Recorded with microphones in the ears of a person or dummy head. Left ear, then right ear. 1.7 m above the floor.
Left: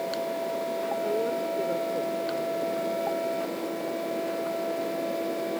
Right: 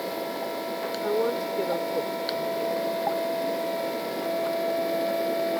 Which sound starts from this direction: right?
A woman speaking, at 1.0 s.